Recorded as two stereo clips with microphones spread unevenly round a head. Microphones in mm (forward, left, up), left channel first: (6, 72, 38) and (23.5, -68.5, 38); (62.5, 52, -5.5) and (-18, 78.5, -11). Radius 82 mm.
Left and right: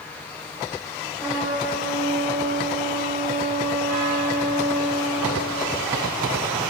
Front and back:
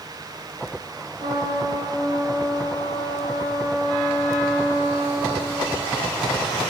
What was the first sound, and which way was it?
A trumpet, 160° right.